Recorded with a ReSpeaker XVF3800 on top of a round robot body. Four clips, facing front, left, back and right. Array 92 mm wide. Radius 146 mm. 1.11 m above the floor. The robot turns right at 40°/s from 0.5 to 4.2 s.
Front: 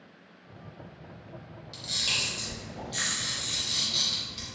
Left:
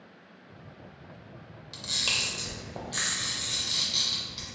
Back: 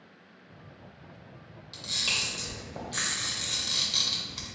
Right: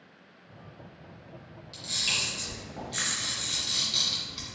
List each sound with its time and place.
1.7 s a camera shutter: 80° left, 0.5 m; by 4.5 s straight behind, 0.5 m